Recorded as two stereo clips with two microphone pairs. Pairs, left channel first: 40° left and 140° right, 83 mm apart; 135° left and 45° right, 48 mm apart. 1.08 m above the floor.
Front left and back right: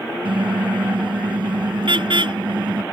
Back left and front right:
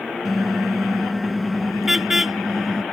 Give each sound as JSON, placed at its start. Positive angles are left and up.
{"t": 0.2, "sound": "a car horn", "azimuth_deg": -135}